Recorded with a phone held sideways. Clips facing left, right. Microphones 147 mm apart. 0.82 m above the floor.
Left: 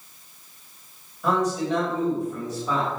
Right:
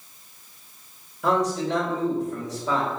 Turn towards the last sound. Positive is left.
turn(degrees=-80)